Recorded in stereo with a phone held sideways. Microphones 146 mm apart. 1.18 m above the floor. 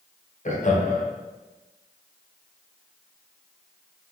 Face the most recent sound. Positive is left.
turn(degrees=60)  # may be behind; listen again after turning